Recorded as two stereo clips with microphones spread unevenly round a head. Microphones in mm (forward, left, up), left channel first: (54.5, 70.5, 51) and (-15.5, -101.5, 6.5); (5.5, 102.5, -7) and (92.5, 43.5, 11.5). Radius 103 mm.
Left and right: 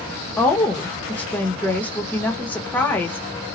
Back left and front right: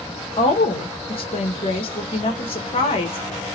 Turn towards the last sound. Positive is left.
turn(degrees=155)